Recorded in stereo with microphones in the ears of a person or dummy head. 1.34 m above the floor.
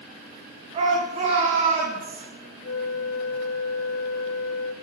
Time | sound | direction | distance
0.7 | a shout | 35° right (ahead or behind) | 3.5 m
2.6 | a flute | 80° left | 0.8 m